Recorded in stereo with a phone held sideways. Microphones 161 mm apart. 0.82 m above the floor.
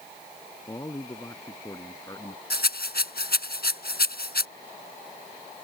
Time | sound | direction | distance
0.7 | a man speaking | 20° left (ahead or behind) | ?
2.5 | a rattle | 75° left (ahead or behind) | ?